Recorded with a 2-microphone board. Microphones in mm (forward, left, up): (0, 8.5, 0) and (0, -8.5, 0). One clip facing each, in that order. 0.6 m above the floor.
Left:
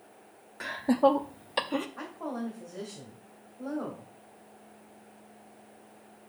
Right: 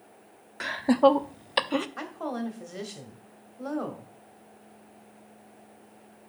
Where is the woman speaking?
65° right (ahead or behind), 2.5 m.